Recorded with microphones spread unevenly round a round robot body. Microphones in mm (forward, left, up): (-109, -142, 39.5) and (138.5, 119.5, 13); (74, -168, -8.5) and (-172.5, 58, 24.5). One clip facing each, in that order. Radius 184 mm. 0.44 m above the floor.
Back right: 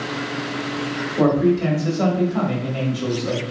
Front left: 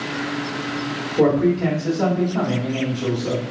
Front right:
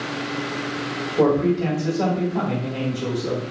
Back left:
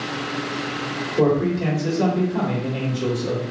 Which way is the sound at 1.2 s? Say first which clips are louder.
Even, front right 1 dB; 175° left.